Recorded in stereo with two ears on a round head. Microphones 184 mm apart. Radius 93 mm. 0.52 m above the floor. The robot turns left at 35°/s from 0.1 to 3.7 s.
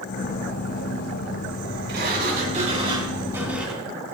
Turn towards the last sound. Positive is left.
turn(degrees=-175)